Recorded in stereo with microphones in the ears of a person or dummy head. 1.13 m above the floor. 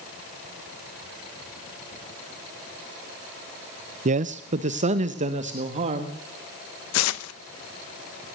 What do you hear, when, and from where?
4.0 s a man speaking: 40° right (ahead or behind), 0.6 m
6.9 s tearing paper: 80° left, 0.9 m